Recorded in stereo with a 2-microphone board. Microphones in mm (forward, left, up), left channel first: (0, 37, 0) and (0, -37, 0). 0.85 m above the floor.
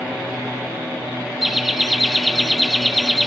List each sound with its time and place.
1.4 s laughter: 5° right (ahead or behind), 1.3 m